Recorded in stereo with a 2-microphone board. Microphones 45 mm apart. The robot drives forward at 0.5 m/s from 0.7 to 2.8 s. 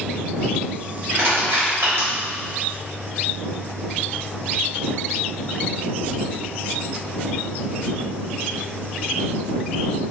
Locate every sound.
1.1 s crushing: 60° right (ahead or behind), 1.4 m; by 2.1 s 65° right (ahead or behind), 1.3 m